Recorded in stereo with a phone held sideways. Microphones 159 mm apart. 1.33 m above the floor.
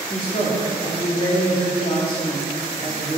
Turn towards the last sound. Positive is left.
turn(degrees=30)  # may be behind; listen again after turning